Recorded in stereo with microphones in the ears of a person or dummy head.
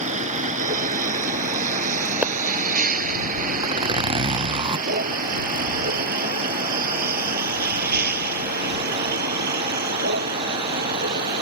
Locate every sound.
0.0 s a vehicle: 40° right (ahead or behind); by 11.4 s 55° right (ahead or behind)
2.2 s a pop: 5° right (ahead or behind)
3.6 s a zipper: 25° right (ahead or behind)